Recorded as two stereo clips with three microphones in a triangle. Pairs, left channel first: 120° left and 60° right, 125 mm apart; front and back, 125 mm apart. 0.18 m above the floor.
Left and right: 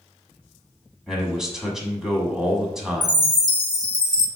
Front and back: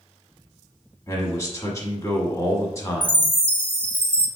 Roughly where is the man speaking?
Ahead.